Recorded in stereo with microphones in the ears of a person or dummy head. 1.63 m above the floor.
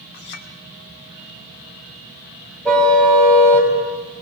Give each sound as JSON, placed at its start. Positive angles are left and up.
{"t": 0.1, "sound": "a clink", "side_deg": 60, "distance_m": 2.5}
{"t": 2.6, "sound": "a car horn", "side_deg": 5, "distance_m": 5.0}